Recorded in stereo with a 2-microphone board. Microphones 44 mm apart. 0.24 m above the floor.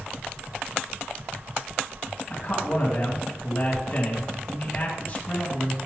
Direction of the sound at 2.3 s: 25° left (ahead or behind).